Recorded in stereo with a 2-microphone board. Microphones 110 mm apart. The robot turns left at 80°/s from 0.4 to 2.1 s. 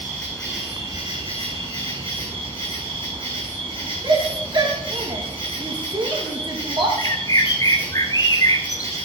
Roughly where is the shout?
Right.